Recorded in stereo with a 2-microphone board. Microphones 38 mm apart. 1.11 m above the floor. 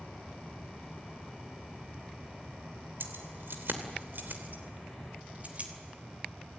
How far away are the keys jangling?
About 3 m.